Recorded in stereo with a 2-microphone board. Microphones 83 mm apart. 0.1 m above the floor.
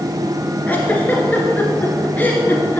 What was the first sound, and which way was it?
A giggle, 20° left (ahead or behind).